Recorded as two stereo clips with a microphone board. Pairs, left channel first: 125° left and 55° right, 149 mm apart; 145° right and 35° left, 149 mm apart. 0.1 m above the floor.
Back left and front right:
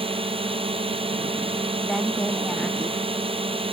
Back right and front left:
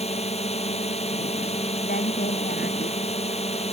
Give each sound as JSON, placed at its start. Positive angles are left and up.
{"t": 0.0, "sound": "a drone", "azimuth_deg": -105}
{"t": 1.8, "sound": "a woman speaking", "azimuth_deg": -145}